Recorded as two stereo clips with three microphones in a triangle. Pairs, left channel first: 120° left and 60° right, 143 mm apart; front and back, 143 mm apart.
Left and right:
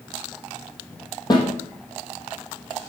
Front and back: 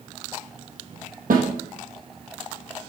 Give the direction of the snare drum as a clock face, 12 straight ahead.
6 o'clock.